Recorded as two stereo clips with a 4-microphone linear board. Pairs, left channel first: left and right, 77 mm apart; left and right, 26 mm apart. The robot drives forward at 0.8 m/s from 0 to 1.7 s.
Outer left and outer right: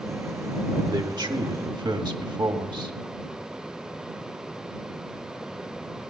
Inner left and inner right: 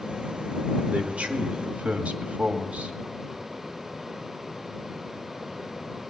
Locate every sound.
0.9 s a man speaking: 65° right (ahead or behind), 1.9 m; by 3.0 s 75° right (ahead or behind), 1.7 m